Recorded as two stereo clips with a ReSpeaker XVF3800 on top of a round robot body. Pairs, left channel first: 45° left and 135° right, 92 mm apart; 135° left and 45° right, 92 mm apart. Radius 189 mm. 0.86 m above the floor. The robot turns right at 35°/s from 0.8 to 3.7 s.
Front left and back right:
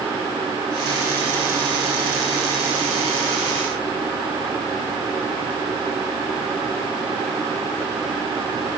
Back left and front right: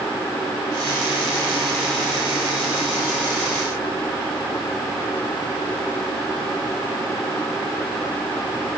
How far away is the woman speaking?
No woman speaking in this recording.